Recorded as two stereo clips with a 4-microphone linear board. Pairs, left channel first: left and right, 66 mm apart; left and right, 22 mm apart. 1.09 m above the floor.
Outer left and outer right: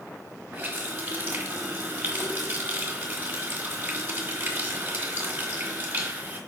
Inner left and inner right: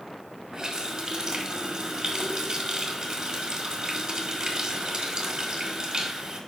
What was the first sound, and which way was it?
A running tap, 30° right (ahead or behind).